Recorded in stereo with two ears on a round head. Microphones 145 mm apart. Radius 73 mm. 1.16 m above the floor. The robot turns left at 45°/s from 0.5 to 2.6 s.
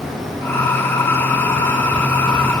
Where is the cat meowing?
No cat meowing in this recording.